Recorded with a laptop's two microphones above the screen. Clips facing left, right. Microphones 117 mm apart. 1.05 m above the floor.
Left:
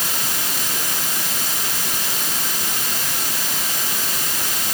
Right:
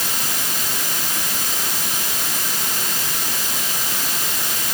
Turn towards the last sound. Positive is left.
No sound to turn to.